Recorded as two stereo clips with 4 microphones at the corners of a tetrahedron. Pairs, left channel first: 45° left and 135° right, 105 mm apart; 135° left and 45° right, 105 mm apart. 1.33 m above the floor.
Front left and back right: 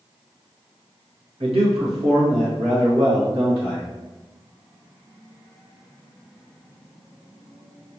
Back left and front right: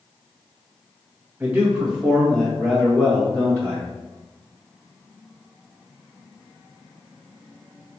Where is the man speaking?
115° right, 1.4 m; by 3.9 s 150° right, 3 m.